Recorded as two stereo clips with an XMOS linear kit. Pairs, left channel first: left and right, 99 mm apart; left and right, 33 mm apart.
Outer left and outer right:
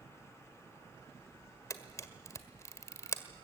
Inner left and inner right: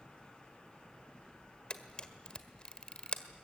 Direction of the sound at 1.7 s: 30° left (ahead or behind).